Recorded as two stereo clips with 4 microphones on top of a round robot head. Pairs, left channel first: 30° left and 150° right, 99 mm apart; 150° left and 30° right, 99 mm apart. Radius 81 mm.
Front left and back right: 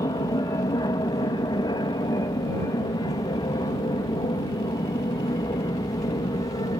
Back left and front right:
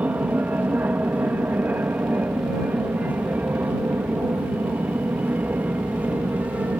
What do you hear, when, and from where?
0.0 s an aircraft: 30° left